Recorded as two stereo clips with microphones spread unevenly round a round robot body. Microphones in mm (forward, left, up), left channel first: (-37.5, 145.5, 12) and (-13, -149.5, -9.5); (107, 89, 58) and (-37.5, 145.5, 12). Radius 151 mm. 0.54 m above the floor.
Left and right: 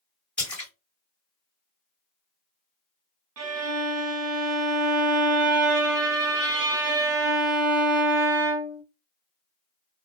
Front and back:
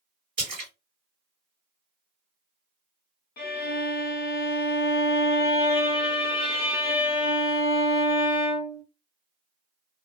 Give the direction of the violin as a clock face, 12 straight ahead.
2 o'clock.